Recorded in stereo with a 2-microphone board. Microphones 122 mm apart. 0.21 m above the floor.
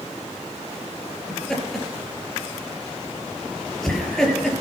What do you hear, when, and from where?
1.3 s laughter: centre (ahead or behind), 4 m